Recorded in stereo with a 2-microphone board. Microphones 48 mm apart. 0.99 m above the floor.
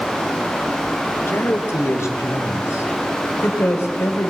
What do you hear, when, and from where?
1.3 s a man speaking: 65° left (ahead or behind), 2.5 m